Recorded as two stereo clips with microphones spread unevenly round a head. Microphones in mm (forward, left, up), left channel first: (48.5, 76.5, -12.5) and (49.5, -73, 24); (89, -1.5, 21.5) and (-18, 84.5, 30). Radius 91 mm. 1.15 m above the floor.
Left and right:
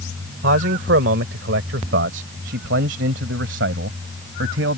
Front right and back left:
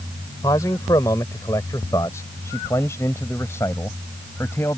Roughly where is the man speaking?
Behind right.